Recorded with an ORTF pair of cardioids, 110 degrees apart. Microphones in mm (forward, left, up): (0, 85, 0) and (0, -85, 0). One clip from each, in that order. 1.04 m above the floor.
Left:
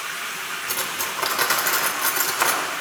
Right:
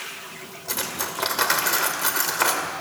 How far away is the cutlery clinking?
About 1.9 m.